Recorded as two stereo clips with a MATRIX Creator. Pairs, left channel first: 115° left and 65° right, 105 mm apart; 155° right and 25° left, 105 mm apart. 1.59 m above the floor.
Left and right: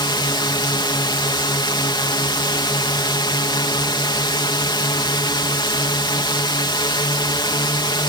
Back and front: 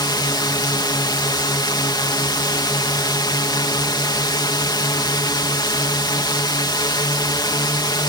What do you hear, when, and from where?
0.0 s a drone: 155° left